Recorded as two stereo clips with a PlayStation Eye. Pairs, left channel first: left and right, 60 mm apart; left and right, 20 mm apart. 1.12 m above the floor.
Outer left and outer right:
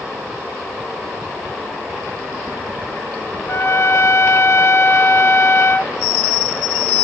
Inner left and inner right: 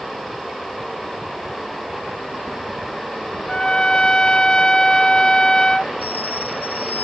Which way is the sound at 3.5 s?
45° left (ahead or behind).